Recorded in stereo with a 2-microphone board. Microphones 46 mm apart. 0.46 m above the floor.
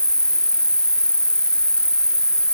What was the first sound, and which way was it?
An insect, 20° left (ahead or behind).